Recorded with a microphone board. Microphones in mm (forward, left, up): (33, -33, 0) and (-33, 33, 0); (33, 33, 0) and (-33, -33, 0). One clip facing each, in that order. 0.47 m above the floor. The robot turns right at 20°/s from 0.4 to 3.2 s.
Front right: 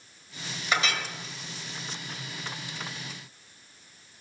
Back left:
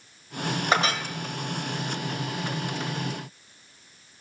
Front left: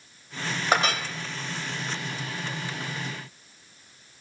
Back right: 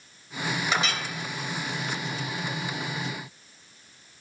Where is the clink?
85° left, 1.0 m; by 1.0 s 90° left, 1.0 m.